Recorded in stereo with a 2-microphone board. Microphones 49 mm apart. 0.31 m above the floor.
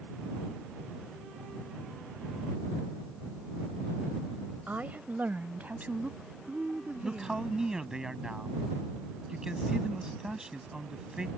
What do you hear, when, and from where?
4.7 s a woman speaking: 35° right (ahead or behind); by 7.5 s 25° right (ahead or behind)
7.0 s a man speaking: 15° right (ahead or behind)